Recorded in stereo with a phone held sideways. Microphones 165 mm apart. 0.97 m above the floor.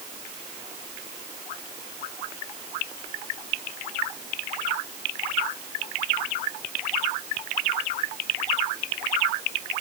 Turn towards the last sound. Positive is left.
No sound to turn to.